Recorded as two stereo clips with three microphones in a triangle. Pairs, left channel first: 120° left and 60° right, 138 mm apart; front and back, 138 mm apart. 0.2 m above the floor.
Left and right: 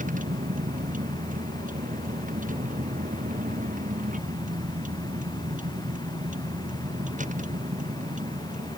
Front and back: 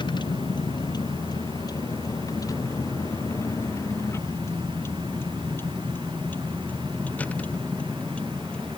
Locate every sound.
0.0 s a vehicle: 55° right; by 8.8 s 85° right